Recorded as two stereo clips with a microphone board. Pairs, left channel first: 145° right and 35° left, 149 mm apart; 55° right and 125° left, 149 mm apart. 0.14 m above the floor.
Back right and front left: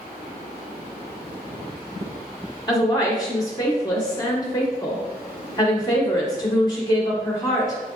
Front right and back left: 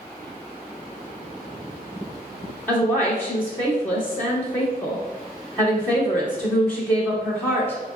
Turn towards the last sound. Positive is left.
turn(degrees=-120)